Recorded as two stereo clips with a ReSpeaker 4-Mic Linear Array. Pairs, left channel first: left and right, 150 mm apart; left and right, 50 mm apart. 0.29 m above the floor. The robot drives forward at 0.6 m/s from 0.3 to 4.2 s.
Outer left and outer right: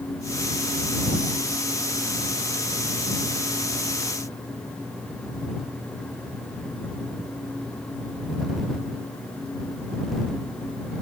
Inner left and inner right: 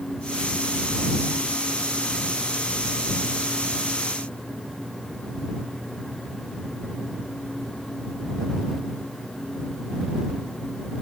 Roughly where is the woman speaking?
I don't hear a woman speaking.